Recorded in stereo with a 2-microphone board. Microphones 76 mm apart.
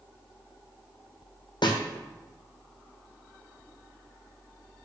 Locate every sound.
1.6 s a snare drum: 75° left (ahead or behind), 1.4 m